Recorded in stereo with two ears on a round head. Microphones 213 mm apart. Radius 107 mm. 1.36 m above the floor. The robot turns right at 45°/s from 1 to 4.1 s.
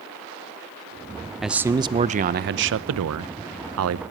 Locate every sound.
1.4 s a man speaking: straight behind, 0.7 m; by 4.0 s 60° right, 0.7 m